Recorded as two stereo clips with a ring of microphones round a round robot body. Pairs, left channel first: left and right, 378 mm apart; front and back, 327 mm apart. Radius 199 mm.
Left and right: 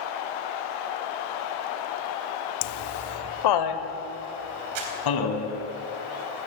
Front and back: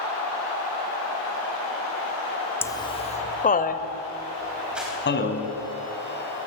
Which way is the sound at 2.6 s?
85° left.